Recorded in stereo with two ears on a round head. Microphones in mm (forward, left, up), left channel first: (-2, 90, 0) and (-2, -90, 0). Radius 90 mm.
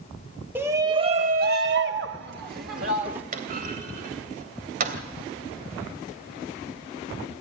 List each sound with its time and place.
0.6 s a shout: 10° right (ahead or behind), 1.6 m; by 3.2 s 45° right (ahead or behind), 2.5 m
3.3 s a clunk: 45° right (ahead or behind), 3 m